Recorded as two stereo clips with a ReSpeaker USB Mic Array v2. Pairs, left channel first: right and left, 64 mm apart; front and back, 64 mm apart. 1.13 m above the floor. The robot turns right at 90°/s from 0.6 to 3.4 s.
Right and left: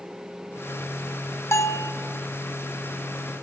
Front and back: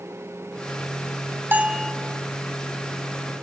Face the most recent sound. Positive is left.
turn(degrees=45)